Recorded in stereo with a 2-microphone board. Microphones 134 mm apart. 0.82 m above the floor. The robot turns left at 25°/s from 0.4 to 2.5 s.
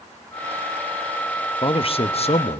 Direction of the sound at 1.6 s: 40° left (ahead or behind).